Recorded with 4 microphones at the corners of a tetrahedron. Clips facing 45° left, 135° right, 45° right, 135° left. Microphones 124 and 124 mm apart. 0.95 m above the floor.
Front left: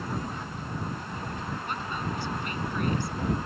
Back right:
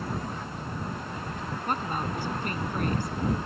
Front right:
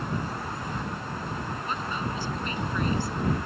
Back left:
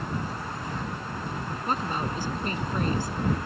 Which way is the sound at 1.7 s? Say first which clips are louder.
Back right 6 dB, back left 5 dB; straight behind.